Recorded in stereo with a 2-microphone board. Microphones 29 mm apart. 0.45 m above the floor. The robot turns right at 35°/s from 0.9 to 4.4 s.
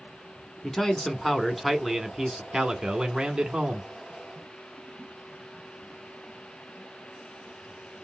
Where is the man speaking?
150° left, 0.9 m; by 3.9 s 105° right, 0.9 m.